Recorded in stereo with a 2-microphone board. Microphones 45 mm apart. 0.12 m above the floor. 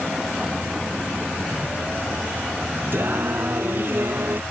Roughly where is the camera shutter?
Left.